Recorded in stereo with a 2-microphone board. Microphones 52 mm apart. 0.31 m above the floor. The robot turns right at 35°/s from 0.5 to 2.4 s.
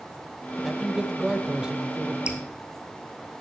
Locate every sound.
0.6 s a man speaking: 10° right (ahead or behind), 0.9 m; by 2.2 s 20° right (ahead or behind), 0.9 m
2.3 s dripping: 20° right (ahead or behind), 1.3 m; by 2.4 s 25° right (ahead or behind), 1.3 m